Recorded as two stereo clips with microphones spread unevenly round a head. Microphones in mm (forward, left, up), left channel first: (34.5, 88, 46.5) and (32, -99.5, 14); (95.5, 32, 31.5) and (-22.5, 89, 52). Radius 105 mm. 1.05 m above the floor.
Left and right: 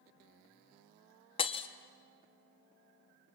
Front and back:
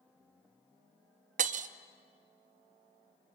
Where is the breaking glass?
150° left, 0.7 m.